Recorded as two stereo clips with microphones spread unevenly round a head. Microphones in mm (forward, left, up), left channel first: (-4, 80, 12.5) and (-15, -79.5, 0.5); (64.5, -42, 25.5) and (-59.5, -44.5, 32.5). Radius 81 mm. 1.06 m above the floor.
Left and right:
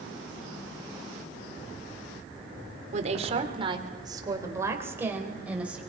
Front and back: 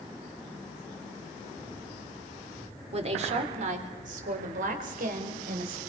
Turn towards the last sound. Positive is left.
turn(degrees=180)